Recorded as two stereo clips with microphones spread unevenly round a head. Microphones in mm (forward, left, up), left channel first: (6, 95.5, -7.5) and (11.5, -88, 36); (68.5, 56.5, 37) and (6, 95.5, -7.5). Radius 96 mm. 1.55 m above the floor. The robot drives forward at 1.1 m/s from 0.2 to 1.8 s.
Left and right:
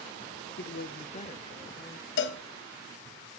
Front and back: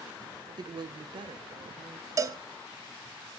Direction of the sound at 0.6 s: 125° left.